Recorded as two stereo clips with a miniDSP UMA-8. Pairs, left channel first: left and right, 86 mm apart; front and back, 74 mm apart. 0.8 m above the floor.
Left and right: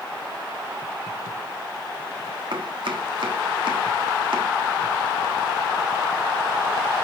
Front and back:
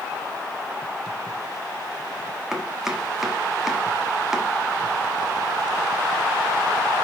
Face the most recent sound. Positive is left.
turn(degrees=-95)